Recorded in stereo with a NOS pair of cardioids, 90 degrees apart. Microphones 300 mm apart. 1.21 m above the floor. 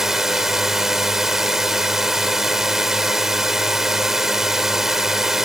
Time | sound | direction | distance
0.0 | a drone | straight ahead | ?